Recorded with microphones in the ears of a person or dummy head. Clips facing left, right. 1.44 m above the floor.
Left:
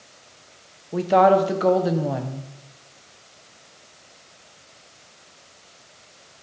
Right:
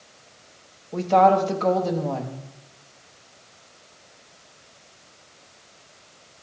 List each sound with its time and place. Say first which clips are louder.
0.9 s a woman speaking: left 1 dB; 15° left (ahead or behind), 0.9 m